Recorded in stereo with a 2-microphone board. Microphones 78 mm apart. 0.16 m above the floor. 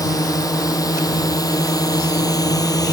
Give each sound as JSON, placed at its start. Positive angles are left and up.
{"t": 0.0, "sound": "a drone", "side_deg": 50}